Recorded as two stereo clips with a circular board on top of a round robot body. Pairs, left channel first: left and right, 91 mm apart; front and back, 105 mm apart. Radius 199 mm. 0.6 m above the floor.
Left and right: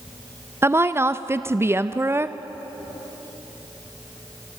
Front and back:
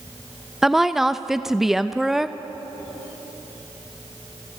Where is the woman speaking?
95° right, 0.9 m.